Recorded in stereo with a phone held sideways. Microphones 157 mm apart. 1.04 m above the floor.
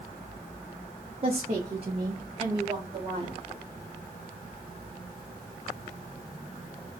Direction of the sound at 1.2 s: 35° right (ahead or behind).